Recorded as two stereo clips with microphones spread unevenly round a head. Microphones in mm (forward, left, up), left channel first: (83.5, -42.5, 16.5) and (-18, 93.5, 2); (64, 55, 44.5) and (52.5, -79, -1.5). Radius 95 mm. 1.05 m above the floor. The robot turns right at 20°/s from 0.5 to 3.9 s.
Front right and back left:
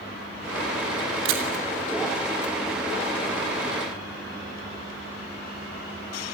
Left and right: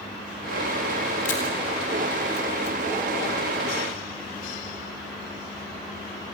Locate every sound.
1.2 s a camera shutter: 135° left, 3 m; by 1.4 s 140° left, 3 m